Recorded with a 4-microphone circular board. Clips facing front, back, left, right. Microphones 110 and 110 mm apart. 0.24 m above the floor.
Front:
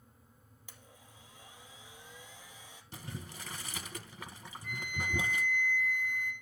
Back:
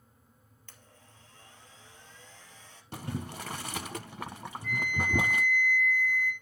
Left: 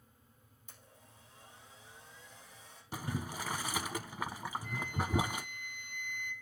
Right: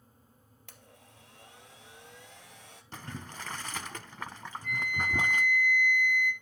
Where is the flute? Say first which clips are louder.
Back 7 dB, right 7 dB; 80° right, 9 m.